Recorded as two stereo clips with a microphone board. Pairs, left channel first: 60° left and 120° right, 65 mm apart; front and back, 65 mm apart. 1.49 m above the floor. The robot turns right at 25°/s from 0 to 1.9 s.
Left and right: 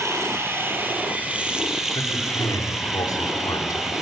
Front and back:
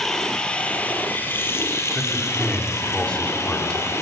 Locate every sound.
0.0 s running water: 85° right, 3.5 m; by 4.0 s 40° right, 3.5 m
1.9 s a man speaking: 75° left, 3.5 m